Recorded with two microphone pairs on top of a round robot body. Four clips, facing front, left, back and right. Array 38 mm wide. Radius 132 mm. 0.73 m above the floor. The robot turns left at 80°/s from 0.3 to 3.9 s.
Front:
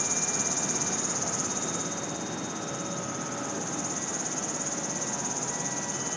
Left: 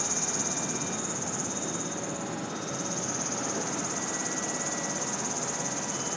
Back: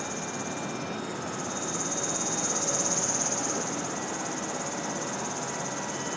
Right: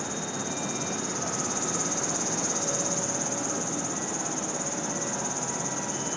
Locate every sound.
0.0 s an insect: 35° left; by 6.2 s 110° left